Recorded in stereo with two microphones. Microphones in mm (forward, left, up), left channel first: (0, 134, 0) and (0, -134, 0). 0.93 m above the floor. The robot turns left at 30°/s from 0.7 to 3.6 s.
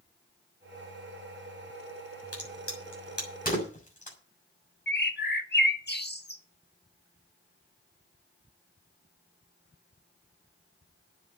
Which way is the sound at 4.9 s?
40° left (ahead or behind).